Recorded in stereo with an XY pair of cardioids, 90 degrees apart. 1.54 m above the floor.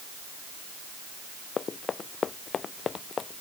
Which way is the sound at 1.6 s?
50° left.